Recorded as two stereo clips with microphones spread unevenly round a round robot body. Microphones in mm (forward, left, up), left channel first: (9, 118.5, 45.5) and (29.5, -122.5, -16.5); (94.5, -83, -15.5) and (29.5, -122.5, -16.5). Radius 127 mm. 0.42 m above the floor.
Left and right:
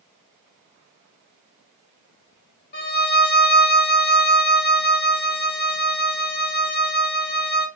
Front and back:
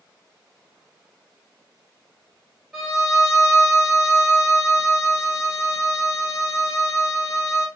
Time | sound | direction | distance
2.7 | a violin | 125° left | 0.9 m